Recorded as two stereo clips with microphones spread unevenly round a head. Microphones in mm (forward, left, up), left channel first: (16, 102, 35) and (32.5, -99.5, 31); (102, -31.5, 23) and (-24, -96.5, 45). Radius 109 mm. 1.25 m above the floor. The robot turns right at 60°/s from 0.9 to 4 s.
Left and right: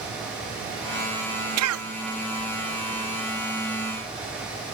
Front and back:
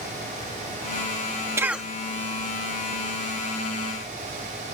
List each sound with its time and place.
1.6 s a cough: 80° right; by 1.9 s 60° right